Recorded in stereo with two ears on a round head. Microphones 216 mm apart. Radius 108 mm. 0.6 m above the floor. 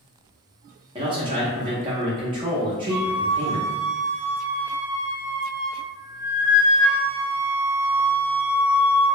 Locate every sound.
0.9 s a man speaking: 20° right (ahead or behind), 0.6 m
2.9 s a flute: 45° left (ahead or behind), 1.2 m